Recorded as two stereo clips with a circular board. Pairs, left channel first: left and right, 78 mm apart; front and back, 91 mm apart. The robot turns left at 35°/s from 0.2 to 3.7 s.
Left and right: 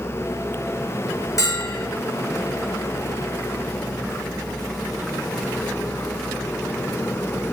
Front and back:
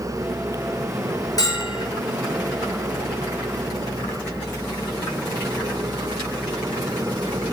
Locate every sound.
1.4 s a bell: 45° left, 4.5 m; by 1.9 s 30° left, 4.5 m